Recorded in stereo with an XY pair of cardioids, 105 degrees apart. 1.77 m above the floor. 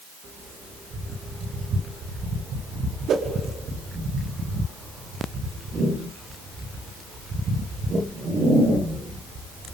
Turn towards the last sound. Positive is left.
turn(degrees=-65)